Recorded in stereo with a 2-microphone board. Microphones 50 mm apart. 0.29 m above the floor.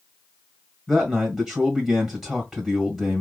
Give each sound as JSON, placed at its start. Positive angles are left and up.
{"t": 0.9, "sound": "a man speaking", "side_deg": -10, "distance_m": 1.8}